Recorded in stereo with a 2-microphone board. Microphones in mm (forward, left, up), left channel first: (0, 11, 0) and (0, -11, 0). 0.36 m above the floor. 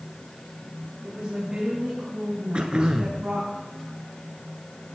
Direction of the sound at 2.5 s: 50° right (ahead or behind).